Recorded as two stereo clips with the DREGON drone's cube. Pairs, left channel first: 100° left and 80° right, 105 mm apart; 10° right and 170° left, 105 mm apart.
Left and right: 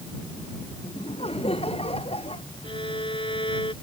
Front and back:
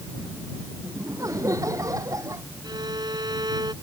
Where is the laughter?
115° left.